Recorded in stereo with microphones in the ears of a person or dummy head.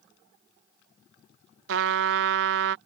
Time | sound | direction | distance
1.7 | a trumpet | 70° right (ahead or behind) | ?